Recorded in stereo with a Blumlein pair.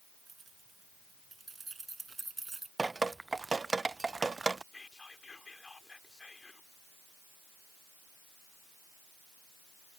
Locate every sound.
0.3 s keys jangling: 15° right; by 2.7 s 10° right
2.8 s dripping: 10° right
4.7 s whispering: 10° left